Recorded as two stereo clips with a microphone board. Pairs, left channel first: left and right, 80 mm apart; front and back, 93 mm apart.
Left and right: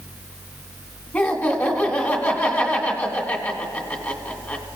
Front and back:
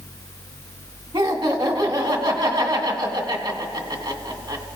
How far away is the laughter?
About 1.8 m.